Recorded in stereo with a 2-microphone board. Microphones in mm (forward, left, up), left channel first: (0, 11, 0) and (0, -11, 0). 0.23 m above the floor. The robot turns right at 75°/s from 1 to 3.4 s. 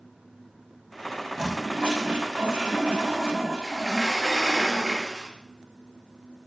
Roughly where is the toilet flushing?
Behind.